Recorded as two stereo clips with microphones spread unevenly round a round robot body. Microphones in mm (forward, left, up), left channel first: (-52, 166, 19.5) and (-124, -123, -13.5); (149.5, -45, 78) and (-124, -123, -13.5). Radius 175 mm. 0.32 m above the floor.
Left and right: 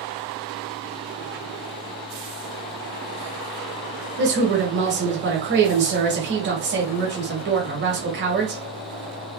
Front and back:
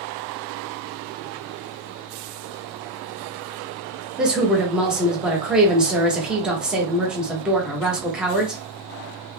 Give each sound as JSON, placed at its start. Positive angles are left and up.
{"t": 4.2, "sound": "a woman speaking", "azimuth_deg": -100, "distance_m": 1.1}